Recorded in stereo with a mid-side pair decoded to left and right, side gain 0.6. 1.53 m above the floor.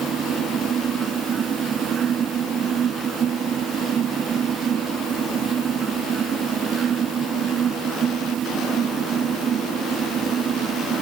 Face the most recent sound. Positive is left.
turn(degrees=-45)